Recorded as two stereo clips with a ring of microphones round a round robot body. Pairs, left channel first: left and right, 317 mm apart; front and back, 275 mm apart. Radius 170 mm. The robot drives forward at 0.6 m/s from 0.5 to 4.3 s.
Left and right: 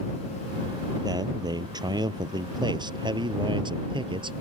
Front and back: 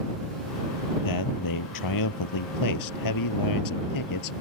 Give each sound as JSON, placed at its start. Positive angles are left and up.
{"t": 1.0, "sound": "a man speaking", "azimuth_deg": -10}